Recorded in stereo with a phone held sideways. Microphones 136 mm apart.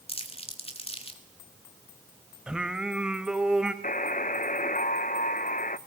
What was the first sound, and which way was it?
Crumpling, 45° left (ahead or behind).